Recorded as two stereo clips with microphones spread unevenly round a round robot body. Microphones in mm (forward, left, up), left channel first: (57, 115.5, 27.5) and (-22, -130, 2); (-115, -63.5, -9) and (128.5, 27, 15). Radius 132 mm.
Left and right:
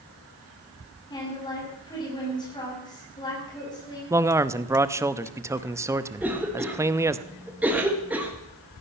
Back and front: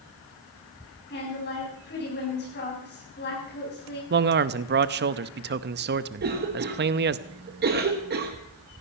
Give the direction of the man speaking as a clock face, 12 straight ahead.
1 o'clock.